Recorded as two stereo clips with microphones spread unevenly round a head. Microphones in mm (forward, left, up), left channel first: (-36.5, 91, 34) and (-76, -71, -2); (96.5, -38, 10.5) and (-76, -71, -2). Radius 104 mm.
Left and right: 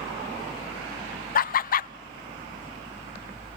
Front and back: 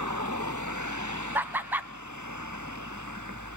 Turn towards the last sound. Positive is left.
turn(degrees=110)